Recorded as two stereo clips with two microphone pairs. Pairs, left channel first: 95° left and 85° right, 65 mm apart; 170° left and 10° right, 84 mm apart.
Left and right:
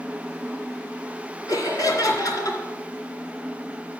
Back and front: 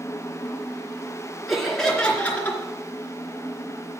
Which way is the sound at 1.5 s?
85° left.